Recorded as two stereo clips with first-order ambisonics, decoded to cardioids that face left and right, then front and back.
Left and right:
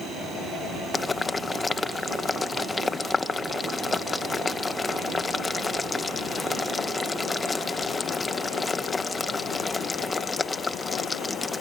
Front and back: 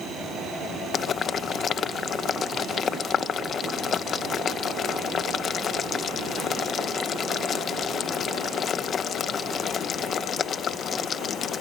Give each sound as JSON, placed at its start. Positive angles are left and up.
{"t": 0.9, "sound": "boiling", "azimuth_deg": 20}